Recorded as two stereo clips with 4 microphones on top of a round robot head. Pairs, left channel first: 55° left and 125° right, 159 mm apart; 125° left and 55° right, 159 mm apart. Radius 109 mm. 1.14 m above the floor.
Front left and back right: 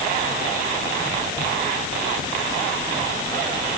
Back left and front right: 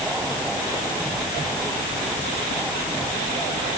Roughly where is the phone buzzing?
No phone buzzing in this recording.